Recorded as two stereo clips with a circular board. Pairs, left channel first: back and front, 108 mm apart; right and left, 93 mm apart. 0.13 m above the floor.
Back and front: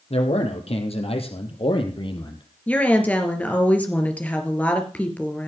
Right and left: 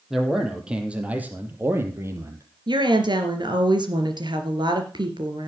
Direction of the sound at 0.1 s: 175° left.